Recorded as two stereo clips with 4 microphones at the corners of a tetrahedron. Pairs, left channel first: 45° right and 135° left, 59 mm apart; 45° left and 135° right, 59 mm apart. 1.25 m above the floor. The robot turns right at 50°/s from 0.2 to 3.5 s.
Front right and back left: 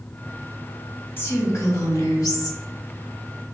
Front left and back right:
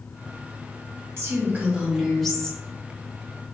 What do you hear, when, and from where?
1.2 s a woman speaking: 95° right, 1.1 m; by 2.6 s 25° right, 1.1 m